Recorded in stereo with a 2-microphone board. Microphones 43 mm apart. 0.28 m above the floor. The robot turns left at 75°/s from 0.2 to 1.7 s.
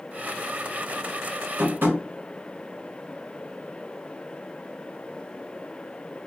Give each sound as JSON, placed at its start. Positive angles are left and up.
{"t": 1.6, "sound": "tapping", "side_deg": -50, "distance_m": 1.1}